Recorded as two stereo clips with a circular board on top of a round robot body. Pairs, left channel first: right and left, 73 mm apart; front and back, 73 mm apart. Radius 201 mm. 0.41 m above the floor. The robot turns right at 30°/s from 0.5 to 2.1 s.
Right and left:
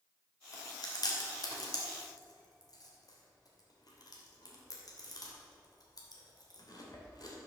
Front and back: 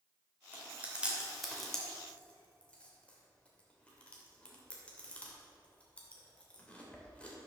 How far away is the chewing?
About 3 m.